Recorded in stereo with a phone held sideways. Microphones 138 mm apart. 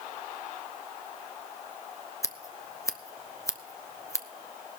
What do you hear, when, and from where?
2.2 s scissors: 20° left (ahead or behind), 0.7 m